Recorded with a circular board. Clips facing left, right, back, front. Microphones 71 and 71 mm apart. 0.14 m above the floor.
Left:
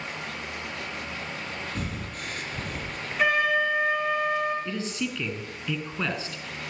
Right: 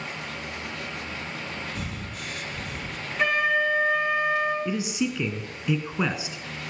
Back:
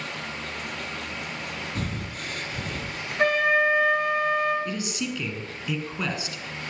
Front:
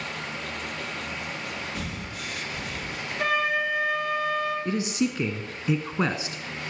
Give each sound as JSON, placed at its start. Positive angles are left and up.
{"t": 1.8, "sound": "breathing", "azimuth_deg": 135, "distance_m": 1.4}
{"t": 3.2, "sound": "a flute", "azimuth_deg": 175, "distance_m": 2.5}
{"t": 4.7, "sound": "a man speaking", "azimuth_deg": -30, "distance_m": 1.1}